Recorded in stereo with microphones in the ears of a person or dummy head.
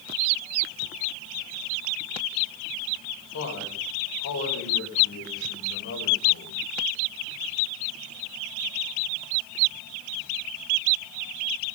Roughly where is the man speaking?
Left.